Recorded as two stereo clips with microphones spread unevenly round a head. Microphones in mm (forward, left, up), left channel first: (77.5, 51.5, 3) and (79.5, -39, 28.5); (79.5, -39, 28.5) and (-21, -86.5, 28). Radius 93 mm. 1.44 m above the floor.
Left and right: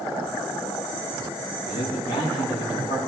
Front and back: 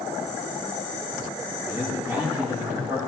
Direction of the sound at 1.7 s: 130° left.